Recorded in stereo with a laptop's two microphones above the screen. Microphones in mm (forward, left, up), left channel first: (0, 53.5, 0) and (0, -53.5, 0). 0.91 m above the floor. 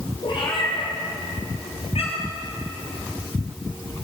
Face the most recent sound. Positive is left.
turn(degrees=75)  # may be behind; listen again after turning